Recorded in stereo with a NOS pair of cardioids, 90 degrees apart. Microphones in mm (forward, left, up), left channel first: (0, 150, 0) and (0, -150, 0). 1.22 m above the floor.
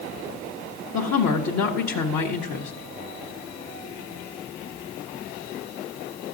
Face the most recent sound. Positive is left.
turn(degrees=65)